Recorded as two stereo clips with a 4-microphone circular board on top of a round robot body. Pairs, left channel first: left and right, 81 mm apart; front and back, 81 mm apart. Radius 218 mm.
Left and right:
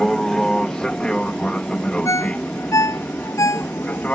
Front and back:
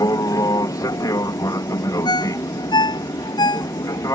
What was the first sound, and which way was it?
An aircraft, 10° left.